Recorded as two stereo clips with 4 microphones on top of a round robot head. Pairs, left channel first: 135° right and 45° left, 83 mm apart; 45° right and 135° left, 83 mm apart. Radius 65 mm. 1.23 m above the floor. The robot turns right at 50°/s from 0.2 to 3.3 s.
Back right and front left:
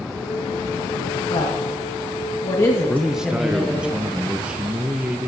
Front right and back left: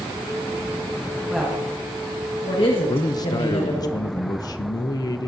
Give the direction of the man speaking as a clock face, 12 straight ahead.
2 o'clock.